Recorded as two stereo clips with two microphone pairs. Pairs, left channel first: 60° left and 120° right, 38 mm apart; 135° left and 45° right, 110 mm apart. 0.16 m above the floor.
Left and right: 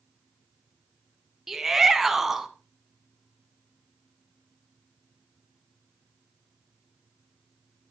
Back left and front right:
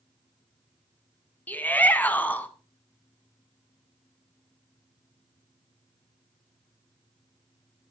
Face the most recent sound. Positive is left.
turn(degrees=175)